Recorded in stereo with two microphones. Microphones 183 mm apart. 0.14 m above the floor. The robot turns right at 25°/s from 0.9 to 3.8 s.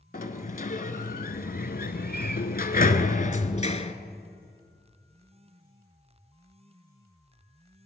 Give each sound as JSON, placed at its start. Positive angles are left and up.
{"t": 0.1, "sound": "a sliding door", "azimuth_deg": 65, "distance_m": 0.8}